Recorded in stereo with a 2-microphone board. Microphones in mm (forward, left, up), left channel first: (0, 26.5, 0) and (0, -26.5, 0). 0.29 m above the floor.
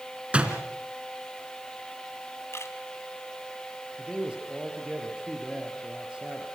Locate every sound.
0.3 s a door slam: 20° right (ahead or behind), 3 m
2.5 s a camera shutter: 60° left (ahead or behind), 2.5 m
4.0 s a man speaking: 20° right (ahead or behind), 6 m